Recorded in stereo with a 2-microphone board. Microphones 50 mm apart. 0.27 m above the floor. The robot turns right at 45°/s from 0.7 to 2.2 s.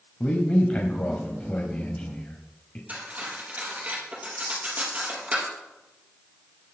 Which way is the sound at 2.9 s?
35° right (ahead or behind).